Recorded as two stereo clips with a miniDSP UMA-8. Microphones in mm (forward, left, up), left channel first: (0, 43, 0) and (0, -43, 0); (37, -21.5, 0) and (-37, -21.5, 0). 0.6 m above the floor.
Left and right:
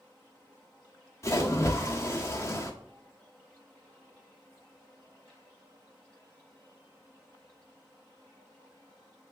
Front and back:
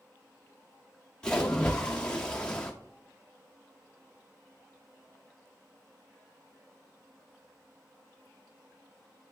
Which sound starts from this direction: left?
A splash, at 1.2 s.